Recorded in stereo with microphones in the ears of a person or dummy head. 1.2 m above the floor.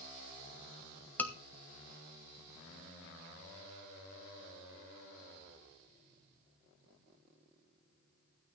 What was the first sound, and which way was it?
A scream, 15° left (ahead or behind).